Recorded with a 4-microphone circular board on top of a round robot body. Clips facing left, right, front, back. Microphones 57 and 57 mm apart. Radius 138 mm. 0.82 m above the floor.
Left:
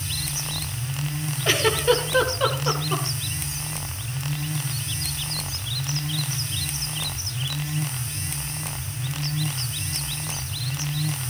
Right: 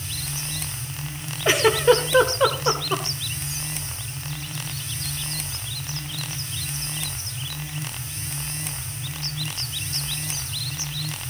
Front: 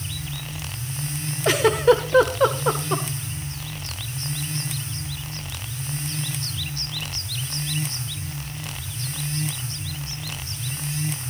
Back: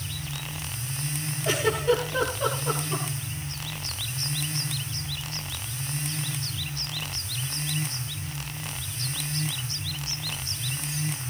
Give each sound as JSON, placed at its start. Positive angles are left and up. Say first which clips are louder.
{"t": 1.4, "sound": "a giggle", "louder": "right 4 dB, front 7 dB", "azimuth_deg": -20, "distance_m": 2.0}